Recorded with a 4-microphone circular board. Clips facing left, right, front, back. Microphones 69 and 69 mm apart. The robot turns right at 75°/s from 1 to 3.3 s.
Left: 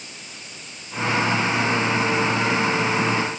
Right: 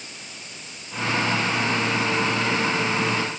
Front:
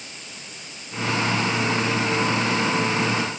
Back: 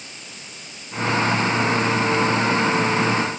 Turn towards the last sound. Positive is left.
No sound to turn to.